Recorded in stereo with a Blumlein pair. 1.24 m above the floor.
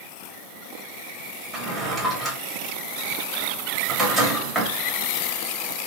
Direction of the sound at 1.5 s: 5° right.